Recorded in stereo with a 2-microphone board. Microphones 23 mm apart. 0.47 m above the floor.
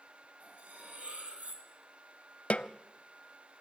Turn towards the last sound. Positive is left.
turn(degrees=70)  # may be behind; listen again after turning